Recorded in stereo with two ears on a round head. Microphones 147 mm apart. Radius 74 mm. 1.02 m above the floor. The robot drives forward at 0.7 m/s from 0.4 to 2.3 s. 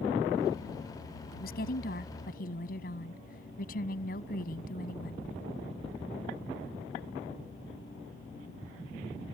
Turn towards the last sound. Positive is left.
turn(degrees=60)  # may be behind; listen again after turning